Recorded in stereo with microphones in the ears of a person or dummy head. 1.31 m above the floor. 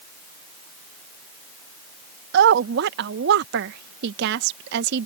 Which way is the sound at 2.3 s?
65° right (ahead or behind).